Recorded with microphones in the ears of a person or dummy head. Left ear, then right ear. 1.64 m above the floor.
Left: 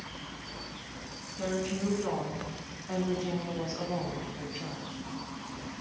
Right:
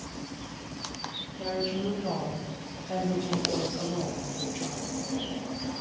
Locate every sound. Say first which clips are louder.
1.4 s a woman speaking: right 2 dB; 45° left (ahead or behind), 2.5 m; by 5.0 s 5° left (ahead or behind), 1.0 m